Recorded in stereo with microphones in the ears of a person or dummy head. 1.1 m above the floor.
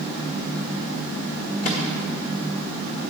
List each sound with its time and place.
1.6 s a microwave: 35° left (ahead or behind), 1.1 m